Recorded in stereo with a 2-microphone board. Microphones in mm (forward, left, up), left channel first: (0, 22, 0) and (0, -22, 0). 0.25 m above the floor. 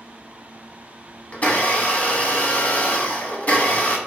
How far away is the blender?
About 0.7 m.